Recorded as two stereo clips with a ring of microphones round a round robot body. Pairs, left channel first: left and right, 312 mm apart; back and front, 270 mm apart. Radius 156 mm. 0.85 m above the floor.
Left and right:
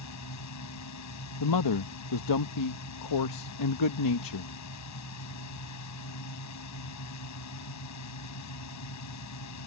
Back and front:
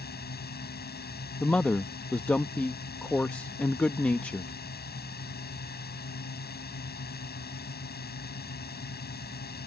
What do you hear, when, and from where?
0.0 s a drone: 125° left
1.4 s a man speaking: 95° left